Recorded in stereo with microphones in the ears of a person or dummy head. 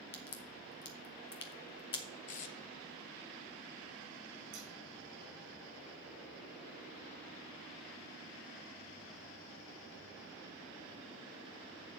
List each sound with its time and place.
0.1 s a crack: 25° left (ahead or behind), 0.7 m
2.3 s tape being pulled: 45° left (ahead or behind), 0.9 m
4.5 s scissors: 45° right (ahead or behind), 3 m